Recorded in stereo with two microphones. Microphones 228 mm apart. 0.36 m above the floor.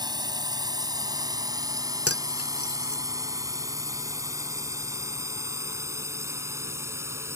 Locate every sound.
0.0 s a drone: 15° right (ahead or behind); by 7.4 s 10° right (ahead or behind)
2.1 s cutlery clinking: 70° left (ahead or behind)